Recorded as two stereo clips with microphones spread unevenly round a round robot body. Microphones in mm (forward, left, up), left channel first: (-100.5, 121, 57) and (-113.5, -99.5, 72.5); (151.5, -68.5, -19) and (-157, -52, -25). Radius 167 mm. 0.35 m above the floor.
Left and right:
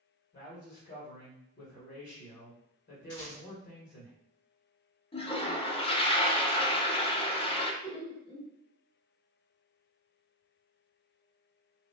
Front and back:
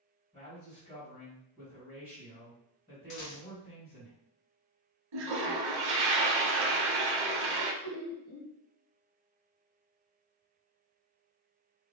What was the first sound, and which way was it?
A man speaking, 65° left.